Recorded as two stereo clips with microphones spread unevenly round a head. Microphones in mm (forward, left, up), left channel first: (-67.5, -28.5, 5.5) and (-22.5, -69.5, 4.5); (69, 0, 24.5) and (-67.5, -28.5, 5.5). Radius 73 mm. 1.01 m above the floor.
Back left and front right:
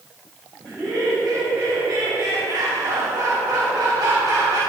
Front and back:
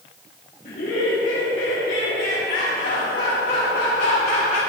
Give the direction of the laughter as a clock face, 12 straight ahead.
10 o'clock.